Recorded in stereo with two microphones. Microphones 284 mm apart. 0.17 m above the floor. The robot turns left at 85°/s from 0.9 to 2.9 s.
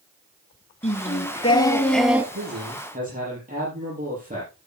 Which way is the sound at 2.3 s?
105° right.